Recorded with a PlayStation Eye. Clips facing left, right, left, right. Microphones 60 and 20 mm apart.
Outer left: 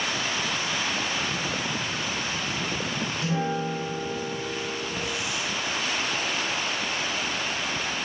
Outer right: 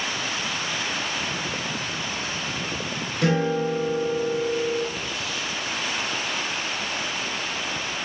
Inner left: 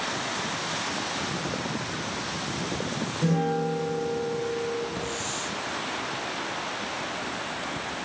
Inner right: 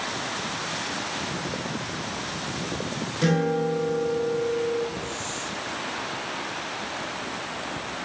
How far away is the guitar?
About 7 m.